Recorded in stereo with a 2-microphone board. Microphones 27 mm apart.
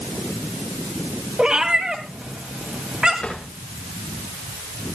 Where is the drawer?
60° left (ahead or behind), 8 m.